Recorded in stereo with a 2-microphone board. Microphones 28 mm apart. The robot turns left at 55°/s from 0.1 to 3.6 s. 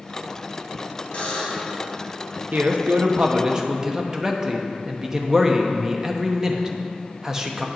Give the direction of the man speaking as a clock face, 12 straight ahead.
3 o'clock.